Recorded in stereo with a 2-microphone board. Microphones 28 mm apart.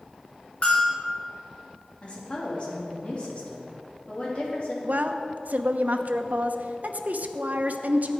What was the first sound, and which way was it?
A bell, 50° left (ahead or behind).